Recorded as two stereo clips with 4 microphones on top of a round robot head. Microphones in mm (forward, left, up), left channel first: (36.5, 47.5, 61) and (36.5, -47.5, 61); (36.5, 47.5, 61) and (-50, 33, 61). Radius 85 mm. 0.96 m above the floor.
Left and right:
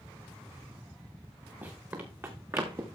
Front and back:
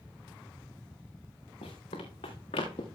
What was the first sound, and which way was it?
Running footsteps, 20° right.